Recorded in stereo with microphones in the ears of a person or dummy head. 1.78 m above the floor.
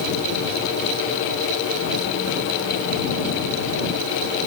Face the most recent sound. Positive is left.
No sound to turn to.